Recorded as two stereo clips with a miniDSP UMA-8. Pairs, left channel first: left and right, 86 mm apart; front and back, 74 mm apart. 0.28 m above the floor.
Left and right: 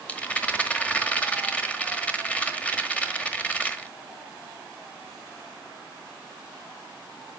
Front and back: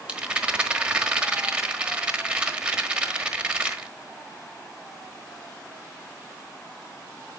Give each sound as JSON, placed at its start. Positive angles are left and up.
{"t": 0.1, "sound": "a rattle", "azimuth_deg": 130, "distance_m": 1.2}